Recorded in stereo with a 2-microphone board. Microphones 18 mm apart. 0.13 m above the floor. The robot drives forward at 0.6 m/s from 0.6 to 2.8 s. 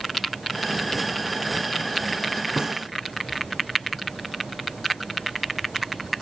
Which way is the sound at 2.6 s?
40° right (ahead or behind).